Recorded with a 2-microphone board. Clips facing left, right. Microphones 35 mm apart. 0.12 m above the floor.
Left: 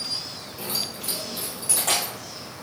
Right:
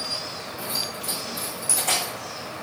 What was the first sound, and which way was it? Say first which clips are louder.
Keys jangling: even; 65° left (ahead or behind).